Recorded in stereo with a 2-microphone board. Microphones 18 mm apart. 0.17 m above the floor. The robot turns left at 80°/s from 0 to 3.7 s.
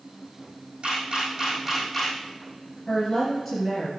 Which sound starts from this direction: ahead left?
A woman speaking, at 2.9 s.